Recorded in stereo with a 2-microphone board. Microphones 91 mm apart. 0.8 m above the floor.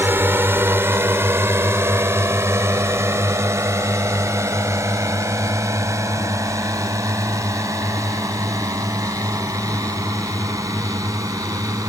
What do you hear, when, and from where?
0.0 s a drone: 25° right (ahead or behind); by 11.9 s 35° right (ahead or behind)